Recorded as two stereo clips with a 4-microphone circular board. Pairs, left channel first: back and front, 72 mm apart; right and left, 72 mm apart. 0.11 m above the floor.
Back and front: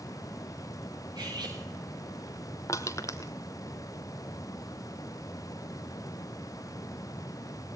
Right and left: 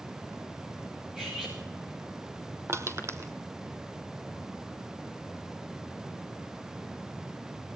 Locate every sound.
1.1 s cutlery clinking: 5° left, 8 m
2.7 s crushing: 140° left, 1.5 m